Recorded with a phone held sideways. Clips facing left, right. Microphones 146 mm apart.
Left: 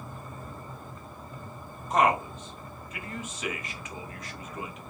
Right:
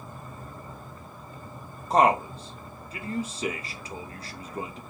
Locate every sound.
1.9 s a man speaking: 35° right (ahead or behind), 0.6 m